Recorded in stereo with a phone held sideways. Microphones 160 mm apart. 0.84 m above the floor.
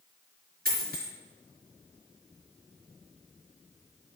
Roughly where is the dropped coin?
Right.